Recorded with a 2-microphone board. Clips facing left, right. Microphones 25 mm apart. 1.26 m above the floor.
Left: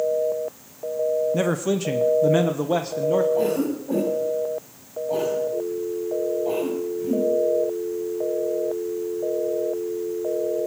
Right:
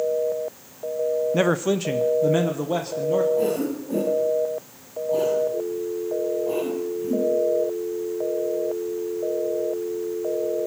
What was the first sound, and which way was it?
A man speaking, 25° right (ahead or behind).